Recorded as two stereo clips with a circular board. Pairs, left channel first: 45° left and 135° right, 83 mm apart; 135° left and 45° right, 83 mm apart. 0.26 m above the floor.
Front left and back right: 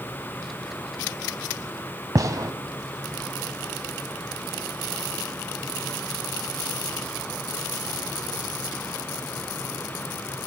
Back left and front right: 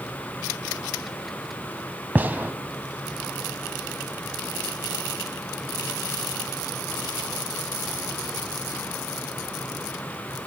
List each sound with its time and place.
2.1 s a gunshot: 105° right, 1.0 m